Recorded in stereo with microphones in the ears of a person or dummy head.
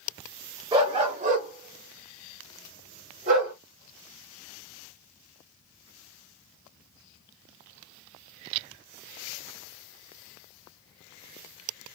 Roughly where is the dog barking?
Right.